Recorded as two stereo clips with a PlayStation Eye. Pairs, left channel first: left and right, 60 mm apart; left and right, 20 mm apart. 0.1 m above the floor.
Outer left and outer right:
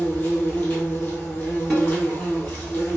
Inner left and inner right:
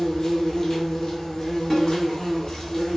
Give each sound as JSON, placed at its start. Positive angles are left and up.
{"t": 0.0, "sound": "an insect", "side_deg": 30, "distance_m": 1.3}
{"t": 1.7, "sound": "a snare drum", "side_deg": 5, "distance_m": 2.0}